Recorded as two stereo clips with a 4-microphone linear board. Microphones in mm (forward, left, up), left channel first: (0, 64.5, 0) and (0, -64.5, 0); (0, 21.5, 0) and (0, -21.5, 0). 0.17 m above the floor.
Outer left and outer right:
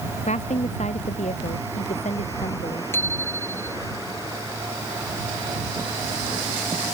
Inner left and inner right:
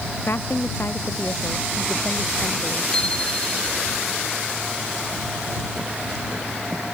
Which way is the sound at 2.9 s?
15° left (ahead or behind).